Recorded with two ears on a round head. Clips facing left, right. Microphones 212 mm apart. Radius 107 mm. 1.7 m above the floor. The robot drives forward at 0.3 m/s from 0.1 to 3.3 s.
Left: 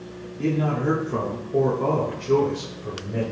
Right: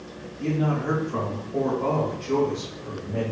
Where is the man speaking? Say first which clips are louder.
Left 2 dB; 75° left (ahead or behind), 0.9 m; by 3.2 s 40° left (ahead or behind), 1.4 m.